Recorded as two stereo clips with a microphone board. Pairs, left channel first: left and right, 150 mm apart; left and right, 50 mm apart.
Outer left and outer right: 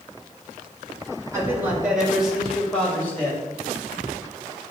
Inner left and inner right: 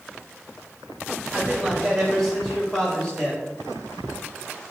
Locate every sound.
1.3 s a man speaking: 20° right (ahead or behind), 3.5 m; by 3.4 s 15° left (ahead or behind), 4.5 m